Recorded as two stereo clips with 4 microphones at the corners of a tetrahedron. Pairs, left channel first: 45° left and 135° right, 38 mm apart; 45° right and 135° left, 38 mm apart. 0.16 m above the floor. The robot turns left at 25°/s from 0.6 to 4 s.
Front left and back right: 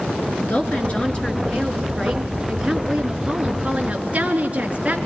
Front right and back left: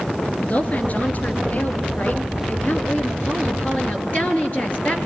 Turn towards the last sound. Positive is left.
turn(degrees=-85)